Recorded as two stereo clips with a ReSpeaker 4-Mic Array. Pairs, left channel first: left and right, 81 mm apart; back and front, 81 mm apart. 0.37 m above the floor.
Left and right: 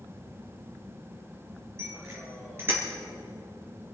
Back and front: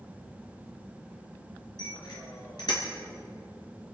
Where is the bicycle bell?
145° right, 5 m; by 2.8 s 155° right, 4.5 m.